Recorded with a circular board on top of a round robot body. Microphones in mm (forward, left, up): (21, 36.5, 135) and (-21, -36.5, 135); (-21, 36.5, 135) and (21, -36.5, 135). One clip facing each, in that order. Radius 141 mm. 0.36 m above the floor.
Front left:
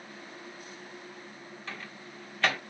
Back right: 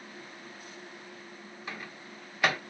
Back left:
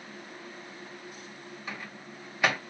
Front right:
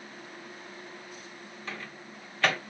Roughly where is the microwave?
Behind.